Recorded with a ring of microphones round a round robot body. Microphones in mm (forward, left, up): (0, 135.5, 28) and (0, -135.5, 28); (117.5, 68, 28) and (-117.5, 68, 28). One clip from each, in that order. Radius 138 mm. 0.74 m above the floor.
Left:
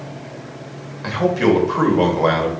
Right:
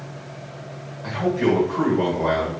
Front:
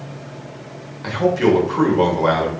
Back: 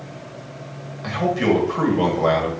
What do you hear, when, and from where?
1.0 s a man speaking: 75° left, 1.6 m